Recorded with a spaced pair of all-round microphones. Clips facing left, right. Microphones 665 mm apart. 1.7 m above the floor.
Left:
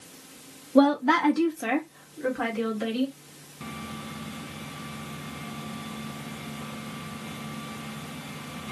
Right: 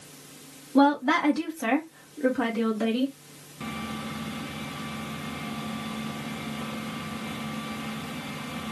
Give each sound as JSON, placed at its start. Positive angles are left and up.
{"t": 0.8, "sound": "a woman speaking", "side_deg": 15, "distance_m": 0.8}